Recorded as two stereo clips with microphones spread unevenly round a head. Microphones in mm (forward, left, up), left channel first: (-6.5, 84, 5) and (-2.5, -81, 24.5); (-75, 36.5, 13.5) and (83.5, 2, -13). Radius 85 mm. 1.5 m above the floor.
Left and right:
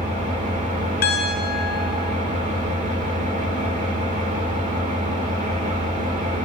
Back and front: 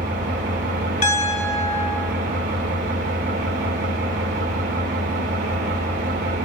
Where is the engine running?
45° right, 2.5 m.